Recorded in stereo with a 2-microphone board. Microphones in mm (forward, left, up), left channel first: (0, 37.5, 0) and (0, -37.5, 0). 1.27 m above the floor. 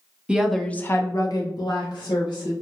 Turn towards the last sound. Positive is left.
turn(degrees=80)